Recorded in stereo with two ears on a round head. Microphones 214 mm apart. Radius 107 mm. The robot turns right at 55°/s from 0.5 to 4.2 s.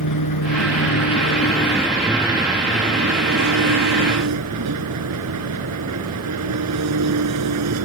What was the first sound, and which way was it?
An engine running, 85° left.